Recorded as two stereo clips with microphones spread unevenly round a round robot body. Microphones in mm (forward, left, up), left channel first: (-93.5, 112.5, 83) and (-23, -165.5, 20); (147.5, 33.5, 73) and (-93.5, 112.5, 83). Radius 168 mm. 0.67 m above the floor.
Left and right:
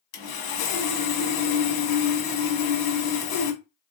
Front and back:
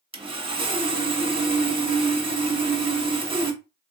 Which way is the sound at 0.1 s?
90° left.